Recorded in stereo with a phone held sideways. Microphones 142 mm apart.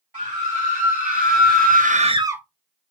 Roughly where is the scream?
Right.